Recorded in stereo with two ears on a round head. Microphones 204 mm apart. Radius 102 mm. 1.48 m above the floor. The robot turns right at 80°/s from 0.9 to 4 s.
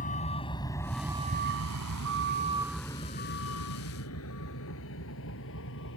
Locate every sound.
0.0 s a vehicle: 35° left (ahead or behind); by 6.0 s 60° left (ahead or behind)